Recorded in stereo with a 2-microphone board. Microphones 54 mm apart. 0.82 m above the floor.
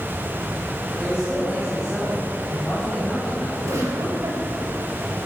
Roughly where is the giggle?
Right.